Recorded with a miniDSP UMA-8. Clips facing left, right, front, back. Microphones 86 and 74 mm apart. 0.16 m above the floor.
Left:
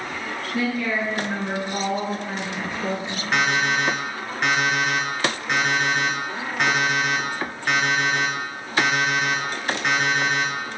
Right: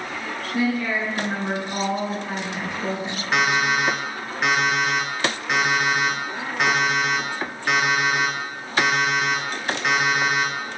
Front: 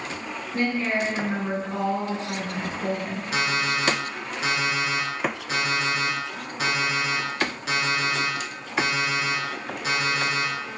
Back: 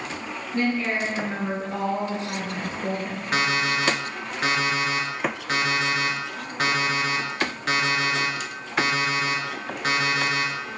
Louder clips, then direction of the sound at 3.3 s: Right 1 dB, back 2 dB; 175° right.